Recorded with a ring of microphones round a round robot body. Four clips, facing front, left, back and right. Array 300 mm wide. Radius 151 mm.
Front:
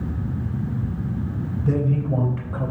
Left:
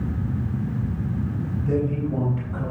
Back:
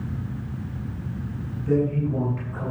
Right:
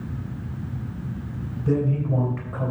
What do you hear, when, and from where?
1.6 s a man speaking: 30° right, 3.5 m; by 2.7 s 50° right, 3.5 m